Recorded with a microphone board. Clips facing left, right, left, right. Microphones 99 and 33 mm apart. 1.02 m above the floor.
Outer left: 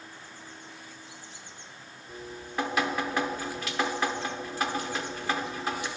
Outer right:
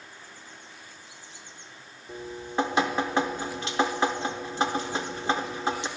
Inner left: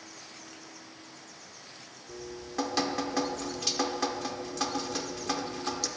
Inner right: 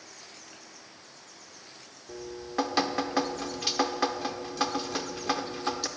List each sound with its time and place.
2.1 s dripping: 25° right (ahead or behind), 0.7 m